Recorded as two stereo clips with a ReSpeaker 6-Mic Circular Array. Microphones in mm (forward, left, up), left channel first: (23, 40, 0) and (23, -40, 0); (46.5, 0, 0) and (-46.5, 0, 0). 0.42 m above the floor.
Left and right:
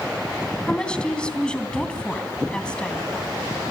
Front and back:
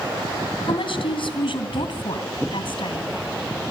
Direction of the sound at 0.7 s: 10° left.